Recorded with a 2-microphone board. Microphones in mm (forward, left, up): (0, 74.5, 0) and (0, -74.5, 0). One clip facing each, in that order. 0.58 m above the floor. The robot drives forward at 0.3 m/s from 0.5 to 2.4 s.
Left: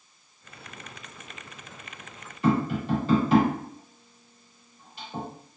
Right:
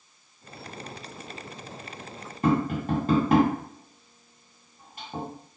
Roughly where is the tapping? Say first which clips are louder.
Even; right.